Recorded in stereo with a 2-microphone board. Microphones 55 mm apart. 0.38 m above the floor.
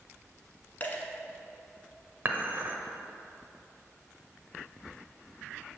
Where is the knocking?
No knocking in this recording.